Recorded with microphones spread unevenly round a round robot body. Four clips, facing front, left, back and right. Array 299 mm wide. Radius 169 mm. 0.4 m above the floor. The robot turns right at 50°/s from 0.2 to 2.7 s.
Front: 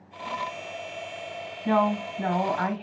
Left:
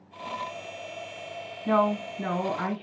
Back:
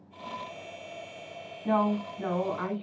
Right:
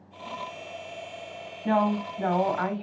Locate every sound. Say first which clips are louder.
1.6 s a woman speaking: even, front 3 dB; 90° right, 2.5 m; by 2.8 s 35° right, 2.5 m